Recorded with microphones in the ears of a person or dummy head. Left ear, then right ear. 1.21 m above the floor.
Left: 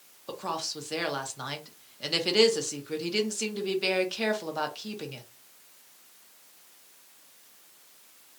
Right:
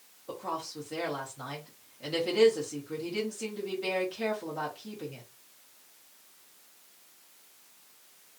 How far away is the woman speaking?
About 0.7 m.